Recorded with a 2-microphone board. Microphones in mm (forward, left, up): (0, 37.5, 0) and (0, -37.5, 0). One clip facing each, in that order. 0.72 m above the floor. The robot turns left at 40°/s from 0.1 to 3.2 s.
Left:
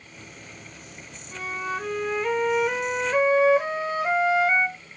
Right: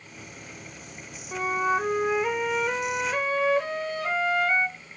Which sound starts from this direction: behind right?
A flute, at 1.3 s.